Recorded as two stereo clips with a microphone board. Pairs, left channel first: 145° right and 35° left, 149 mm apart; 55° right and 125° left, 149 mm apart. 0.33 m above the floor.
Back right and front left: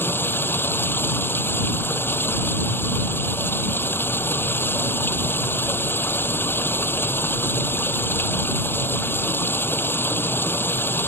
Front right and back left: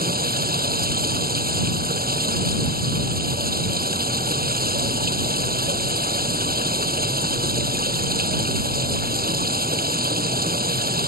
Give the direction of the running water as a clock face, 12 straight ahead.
7 o'clock.